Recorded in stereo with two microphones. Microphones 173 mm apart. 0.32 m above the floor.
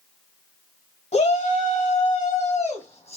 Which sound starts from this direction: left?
A shout, at 1.1 s.